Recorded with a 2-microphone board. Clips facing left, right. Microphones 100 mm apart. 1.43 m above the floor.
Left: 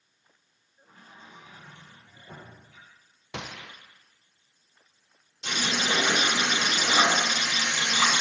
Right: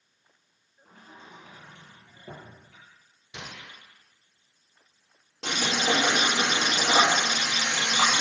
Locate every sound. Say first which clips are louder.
0.8 s a sliding door: right 2 dB; 70° right (ahead or behind), 5 m
3.3 s a gunshot: left 4 dB; 85° left, 1.0 m
5.4 s frying: right 2 dB; 85° right, 4.5 m